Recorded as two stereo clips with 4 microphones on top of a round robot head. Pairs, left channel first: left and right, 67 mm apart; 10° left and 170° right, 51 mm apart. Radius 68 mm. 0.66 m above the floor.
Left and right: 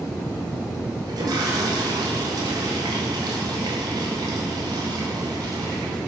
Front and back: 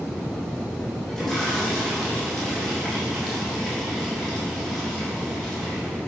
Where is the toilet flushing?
75° right, 3 m.